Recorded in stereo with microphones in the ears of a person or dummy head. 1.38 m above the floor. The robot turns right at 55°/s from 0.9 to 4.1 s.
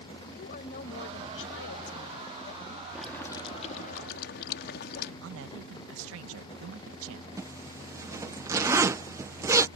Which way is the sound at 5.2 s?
80° right.